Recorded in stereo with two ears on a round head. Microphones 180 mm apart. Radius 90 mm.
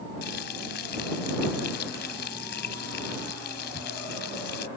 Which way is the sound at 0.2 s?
55° left (ahead or behind).